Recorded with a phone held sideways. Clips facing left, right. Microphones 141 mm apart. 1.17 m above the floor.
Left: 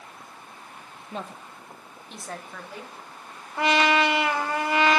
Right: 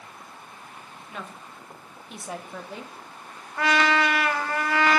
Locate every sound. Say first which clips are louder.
1.1 s a woman speaking: left 4 dB; 35° left (ahead or behind), 0.9 m; by 2.9 s 25° right (ahead or behind), 1.2 m
3.6 s a trumpet: left 1 dB; 20° left (ahead or behind), 0.9 m